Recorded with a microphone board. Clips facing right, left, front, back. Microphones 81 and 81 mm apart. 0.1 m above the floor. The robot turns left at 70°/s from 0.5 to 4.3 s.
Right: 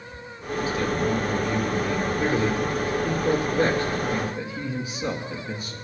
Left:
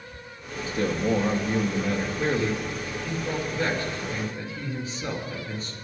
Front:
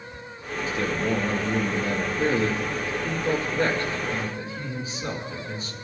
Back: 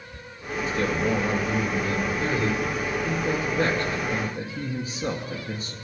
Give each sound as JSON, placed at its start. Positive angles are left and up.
{"t": 0.7, "sound": "a man speaking", "azimuth_deg": 90, "distance_m": 2.0}